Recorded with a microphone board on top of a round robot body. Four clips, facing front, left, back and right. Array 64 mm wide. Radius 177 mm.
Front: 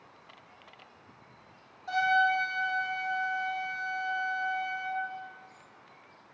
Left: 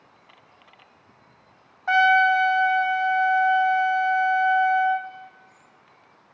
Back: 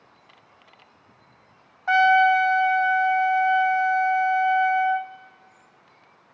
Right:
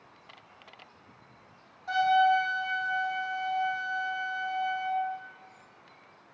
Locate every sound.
1.9 s a trumpet: 135° left, 0.9 m